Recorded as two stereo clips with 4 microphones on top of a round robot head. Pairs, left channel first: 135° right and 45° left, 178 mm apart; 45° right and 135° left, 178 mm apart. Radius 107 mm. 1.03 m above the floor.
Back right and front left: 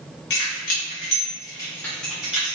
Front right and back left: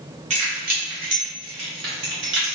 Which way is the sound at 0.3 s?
170° right.